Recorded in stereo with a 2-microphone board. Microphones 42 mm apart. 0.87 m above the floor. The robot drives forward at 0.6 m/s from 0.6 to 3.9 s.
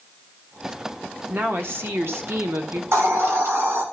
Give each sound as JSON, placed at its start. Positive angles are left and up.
{"t": 1.3, "sound": "a woman speaking", "side_deg": -60, "distance_m": 1.8}
{"t": 2.9, "sound": "a hiss", "side_deg": -85, "distance_m": 2.0}